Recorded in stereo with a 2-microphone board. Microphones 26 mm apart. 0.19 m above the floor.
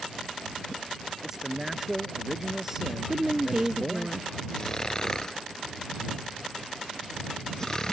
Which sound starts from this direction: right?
A woman speaking, at 3.1 s.